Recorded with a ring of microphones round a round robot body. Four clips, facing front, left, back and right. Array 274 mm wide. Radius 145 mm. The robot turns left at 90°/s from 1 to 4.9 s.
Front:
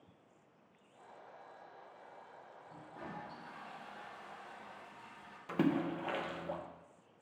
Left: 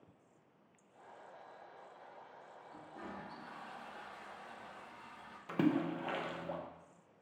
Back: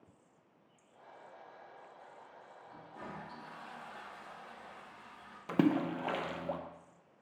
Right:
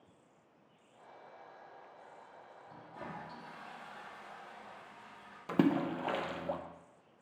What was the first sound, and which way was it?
A toilet flushing, 65° right.